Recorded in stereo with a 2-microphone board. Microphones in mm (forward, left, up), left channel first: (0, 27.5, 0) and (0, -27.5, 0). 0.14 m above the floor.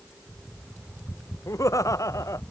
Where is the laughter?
80° left.